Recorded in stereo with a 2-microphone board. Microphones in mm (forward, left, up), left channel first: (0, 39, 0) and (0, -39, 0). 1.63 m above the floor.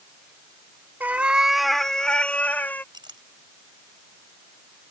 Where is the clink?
70° right (ahead or behind).